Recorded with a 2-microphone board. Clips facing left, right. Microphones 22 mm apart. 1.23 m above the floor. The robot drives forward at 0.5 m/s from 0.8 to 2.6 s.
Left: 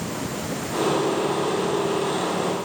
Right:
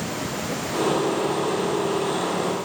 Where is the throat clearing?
No throat clearing in this recording.